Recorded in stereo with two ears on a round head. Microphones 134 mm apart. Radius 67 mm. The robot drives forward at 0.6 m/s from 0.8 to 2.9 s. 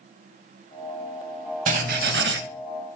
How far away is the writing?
About 0.7 m.